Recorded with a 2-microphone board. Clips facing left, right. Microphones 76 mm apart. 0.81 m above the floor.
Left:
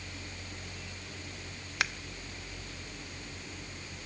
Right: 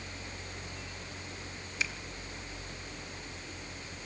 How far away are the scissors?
About 0.7 m.